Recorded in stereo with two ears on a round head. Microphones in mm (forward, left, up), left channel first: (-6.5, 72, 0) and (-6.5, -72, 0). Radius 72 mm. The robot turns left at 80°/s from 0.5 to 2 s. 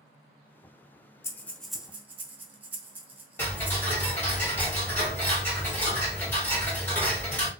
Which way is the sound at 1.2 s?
20° left (ahead or behind).